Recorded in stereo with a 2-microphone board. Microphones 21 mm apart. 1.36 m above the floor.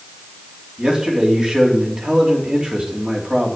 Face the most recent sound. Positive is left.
turn(degrees=-55)  # may be behind; listen again after turning